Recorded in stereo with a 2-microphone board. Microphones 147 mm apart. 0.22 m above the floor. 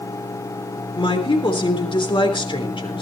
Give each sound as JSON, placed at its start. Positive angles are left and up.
{"t": 1.0, "sound": "a woman speaking", "side_deg": 35, "distance_m": 3.5}